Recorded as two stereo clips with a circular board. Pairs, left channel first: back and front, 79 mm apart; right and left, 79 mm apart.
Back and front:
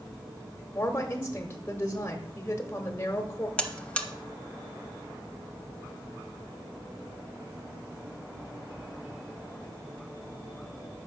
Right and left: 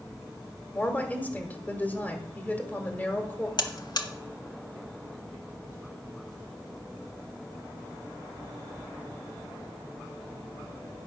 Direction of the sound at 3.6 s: 105° right.